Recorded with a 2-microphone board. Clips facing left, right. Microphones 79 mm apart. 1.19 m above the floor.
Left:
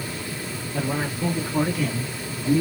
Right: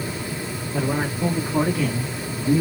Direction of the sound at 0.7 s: 25° right (ahead or behind).